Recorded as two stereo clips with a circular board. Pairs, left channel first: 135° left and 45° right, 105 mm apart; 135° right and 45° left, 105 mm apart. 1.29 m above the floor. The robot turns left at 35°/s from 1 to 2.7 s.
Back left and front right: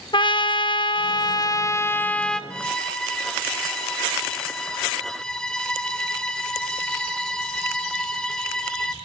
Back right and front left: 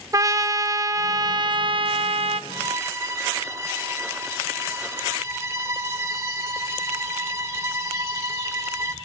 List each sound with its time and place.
0.1 s a trumpet: 100° left, 1.0 m; by 2.4 s 50° left, 1.0 m
2.5 s a violin: 70° left, 0.9 m; by 8.9 s 60° left, 0.9 m